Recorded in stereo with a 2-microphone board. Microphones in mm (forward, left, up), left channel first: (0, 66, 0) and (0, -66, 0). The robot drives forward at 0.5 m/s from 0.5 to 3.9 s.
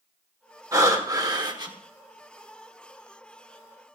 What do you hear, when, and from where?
0.7 s breathing: 25° right (ahead or behind), 1.7 m; by 1.7 s 35° right (ahead or behind), 1.2 m